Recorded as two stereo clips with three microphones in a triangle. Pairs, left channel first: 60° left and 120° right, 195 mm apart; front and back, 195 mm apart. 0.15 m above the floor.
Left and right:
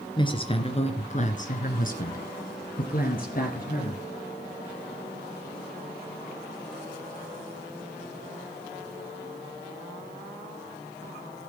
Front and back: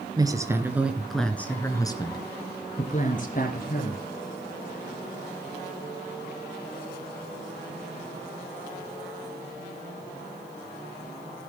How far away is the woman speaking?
About 2.5 m.